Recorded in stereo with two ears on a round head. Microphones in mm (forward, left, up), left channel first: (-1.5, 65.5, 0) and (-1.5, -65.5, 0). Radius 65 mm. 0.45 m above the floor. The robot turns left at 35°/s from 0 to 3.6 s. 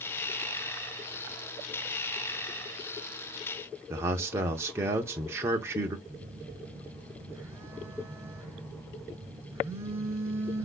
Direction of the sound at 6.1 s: 15° right (ahead or behind).